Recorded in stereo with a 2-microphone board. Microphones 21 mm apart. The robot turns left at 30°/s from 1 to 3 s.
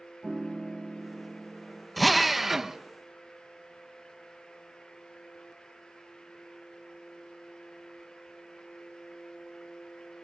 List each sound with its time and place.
0.2 s a piano: 35° right (ahead or behind), 1.4 m; by 1.9 s 15° right (ahead or behind), 1.4 m
2.0 s a drill: 5° left (ahead or behind), 0.9 m; by 2.8 s 15° right (ahead or behind), 0.9 m